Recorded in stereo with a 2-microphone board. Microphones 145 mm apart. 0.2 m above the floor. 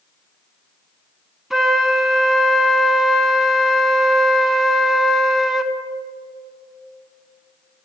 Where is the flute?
5° right (ahead or behind), 0.6 m.